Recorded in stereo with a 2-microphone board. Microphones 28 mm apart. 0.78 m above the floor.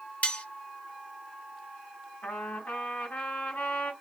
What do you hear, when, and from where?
0.2 s cutlery clinking: 60° left (ahead or behind), 0.8 m
2.2 s a trumpet: 65° left (ahead or behind), 3 m